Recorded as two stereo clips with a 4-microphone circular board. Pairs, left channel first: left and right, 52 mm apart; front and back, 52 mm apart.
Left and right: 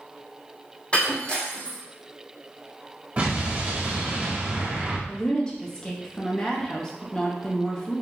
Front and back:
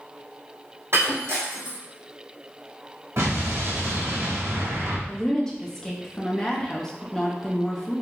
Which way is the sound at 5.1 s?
55° left.